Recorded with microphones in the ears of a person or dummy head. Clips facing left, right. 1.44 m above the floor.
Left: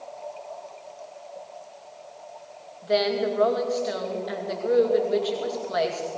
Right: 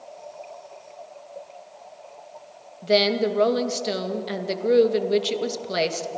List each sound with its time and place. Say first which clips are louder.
2.8 s a woman speaking: right 3 dB; 40° right (ahead or behind), 2 m